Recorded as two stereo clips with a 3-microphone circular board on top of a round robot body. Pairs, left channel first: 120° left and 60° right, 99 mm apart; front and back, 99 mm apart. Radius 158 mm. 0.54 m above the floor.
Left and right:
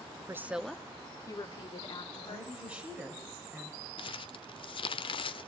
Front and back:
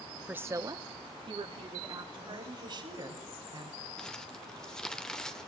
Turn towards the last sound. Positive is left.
turn(degrees=85)